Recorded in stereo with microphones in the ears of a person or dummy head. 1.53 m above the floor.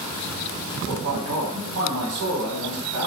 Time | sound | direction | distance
0.9 | a man speaking | 70° right (ahead or behind) | 1.2 m